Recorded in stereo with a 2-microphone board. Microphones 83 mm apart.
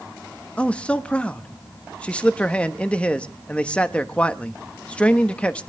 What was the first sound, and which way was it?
A man speaking, 15° left (ahead or behind).